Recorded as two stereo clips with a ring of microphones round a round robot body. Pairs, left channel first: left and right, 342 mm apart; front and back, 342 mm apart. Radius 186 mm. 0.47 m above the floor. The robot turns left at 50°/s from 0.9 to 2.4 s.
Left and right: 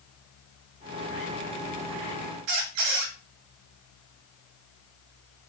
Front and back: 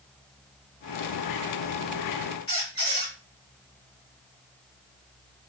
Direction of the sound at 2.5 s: 75° right.